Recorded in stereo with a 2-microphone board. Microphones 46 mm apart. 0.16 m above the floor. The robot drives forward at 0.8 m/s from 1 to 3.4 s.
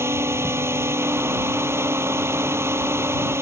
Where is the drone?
70° right (ahead or behind).